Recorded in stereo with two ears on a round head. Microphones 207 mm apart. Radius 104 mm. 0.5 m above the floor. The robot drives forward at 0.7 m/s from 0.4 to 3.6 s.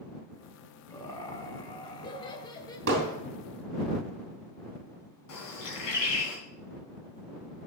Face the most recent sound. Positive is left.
turn(degrees=80)